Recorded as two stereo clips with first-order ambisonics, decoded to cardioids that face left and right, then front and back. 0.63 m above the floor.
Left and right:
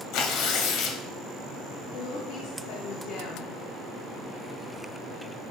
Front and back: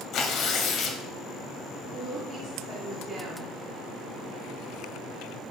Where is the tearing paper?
50° left, 1.0 m.